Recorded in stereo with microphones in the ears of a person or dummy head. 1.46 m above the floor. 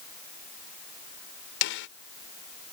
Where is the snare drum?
65° left (ahead or behind).